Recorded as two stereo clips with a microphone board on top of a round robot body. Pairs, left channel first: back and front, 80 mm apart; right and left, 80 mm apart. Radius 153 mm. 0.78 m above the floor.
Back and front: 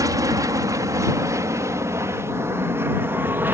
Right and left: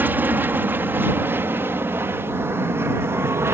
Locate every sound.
0.0 s an aircraft: 30° left; by 3.5 s 50° left